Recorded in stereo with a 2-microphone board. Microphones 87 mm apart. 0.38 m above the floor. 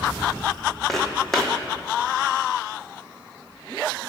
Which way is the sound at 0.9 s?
Centre (ahead or behind).